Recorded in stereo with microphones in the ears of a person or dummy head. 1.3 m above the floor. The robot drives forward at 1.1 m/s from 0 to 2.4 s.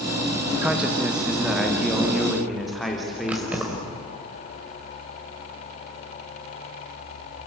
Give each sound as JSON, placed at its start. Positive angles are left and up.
{"t": 0.6, "sound": "a man speaking", "side_deg": -20, "distance_m": 1.6}
{"t": 3.3, "sound": "keys jangling", "side_deg": 0, "distance_m": 5.0}